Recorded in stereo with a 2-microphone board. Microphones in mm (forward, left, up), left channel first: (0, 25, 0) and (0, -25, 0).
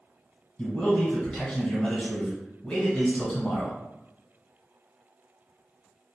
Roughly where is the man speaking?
Centre.